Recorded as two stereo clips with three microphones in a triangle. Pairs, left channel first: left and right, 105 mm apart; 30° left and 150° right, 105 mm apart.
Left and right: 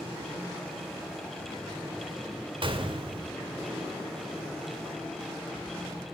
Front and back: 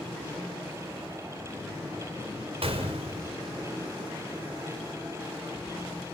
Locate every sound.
2.6 s a gunshot: 125° right, 3.5 m